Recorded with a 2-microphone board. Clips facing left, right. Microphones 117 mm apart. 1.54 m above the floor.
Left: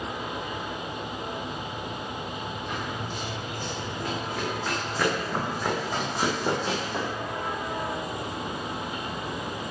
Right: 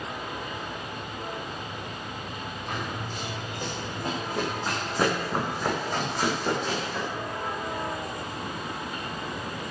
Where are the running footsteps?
45° right (ahead or behind), 6.5 m; by 7.1 s 25° left (ahead or behind), 4 m.